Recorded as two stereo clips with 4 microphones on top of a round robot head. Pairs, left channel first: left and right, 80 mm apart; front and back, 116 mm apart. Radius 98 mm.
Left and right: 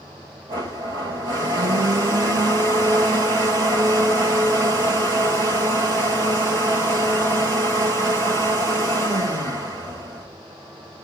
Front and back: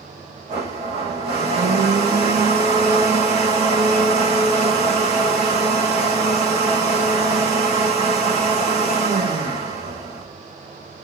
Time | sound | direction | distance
0.5 | a blender | 135° right | 4 m